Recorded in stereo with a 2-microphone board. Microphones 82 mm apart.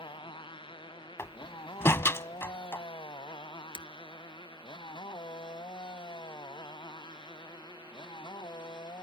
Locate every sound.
0.0 s a motorcycle: 80° left; by 9.0 s 65° left (ahead or behind)
1.2 s a door slam: 30° left (ahead or behind)
3.8 s breaking glass: 75° right (ahead or behind)